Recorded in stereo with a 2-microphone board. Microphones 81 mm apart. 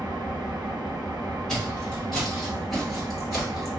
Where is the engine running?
60° right (ahead or behind), 0.8 m.